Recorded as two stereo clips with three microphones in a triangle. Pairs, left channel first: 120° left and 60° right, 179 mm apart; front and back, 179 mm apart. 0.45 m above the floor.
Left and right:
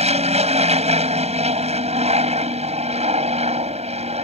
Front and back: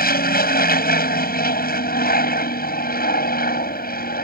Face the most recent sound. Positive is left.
turn(degrees=-15)